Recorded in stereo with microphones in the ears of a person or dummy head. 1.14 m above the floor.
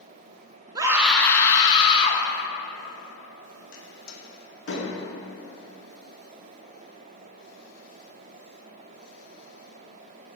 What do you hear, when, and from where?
0.8 s a scream: 25° right (ahead or behind), 0.5 m; by 2.2 s 35° left (ahead or behind), 1.3 m
3.7 s a door slam: 80° left, 1.5 m